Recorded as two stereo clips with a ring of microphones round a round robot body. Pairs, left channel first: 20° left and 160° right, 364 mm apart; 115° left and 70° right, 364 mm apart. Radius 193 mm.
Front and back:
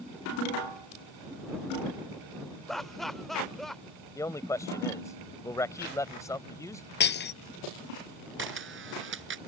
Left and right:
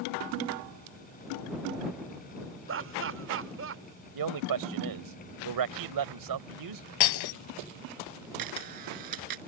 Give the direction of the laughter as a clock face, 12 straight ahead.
2 o'clock.